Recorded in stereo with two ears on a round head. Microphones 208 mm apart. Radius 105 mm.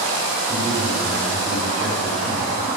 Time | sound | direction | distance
0.5 | a man speaking | 10° right (ahead or behind) | 4 m